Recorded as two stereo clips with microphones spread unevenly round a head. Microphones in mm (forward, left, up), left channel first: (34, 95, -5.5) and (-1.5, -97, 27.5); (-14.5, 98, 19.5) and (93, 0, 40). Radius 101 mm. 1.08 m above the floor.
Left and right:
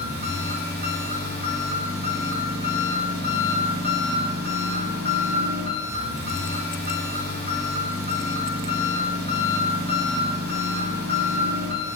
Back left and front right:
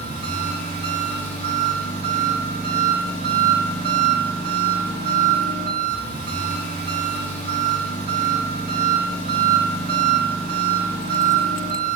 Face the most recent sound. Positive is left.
turn(degrees=-60)